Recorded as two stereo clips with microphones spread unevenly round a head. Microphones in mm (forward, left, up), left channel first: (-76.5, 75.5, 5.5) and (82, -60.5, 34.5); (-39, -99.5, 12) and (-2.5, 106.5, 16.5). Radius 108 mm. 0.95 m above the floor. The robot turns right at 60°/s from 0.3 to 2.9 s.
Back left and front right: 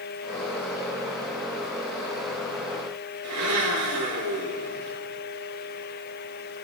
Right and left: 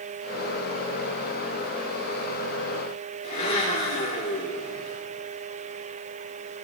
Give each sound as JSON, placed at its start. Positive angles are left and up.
{"t": 3.2, "sound": "a blender", "azimuth_deg": -35, "distance_m": 7.0}